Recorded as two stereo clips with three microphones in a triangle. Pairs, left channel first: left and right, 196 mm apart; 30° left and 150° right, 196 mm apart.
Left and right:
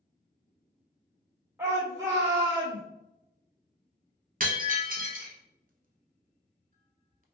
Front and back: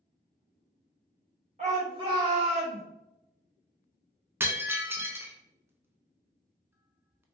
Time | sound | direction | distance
1.6 | a shout | 160° right | 1.7 m
4.4 | breaking glass | 75° right | 0.5 m